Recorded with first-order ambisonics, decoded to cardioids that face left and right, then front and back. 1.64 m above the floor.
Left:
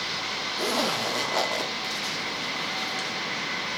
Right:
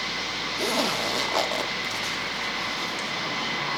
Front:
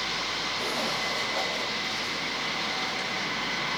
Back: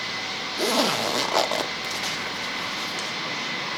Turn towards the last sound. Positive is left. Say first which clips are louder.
# right 1 dB, back 6 dB
turn(degrees=-175)